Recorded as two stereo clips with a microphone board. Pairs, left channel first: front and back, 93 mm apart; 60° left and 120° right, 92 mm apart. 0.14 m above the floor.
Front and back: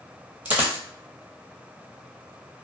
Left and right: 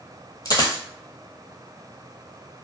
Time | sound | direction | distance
0.5 | a dropped coin | 105° left | 0.8 m